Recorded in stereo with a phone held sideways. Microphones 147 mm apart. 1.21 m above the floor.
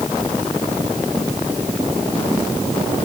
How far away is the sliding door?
I don't hear a sliding door.